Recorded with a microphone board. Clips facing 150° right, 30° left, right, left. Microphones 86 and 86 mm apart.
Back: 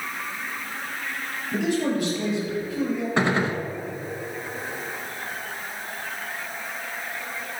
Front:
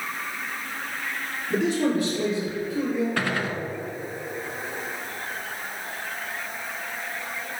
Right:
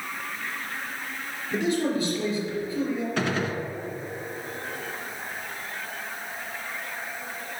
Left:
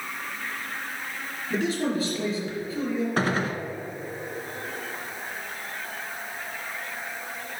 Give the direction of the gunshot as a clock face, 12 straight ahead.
7 o'clock.